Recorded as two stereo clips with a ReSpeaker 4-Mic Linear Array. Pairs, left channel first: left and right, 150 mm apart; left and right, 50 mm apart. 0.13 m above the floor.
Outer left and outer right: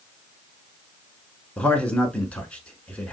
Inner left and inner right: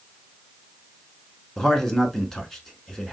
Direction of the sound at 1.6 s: 10° left (ahead or behind).